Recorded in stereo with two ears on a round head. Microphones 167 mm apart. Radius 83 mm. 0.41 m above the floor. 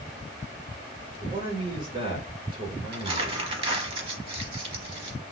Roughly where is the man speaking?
Right.